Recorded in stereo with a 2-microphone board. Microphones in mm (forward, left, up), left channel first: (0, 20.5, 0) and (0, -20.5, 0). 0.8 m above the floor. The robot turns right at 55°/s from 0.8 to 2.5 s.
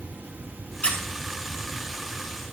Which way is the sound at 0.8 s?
25° left (ahead or behind).